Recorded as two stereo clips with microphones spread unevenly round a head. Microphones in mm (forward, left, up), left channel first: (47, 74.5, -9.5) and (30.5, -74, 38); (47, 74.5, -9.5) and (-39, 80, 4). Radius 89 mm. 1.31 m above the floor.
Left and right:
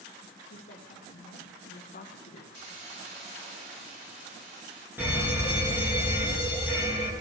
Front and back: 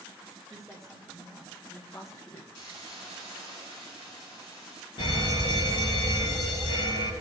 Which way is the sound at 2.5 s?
85° right.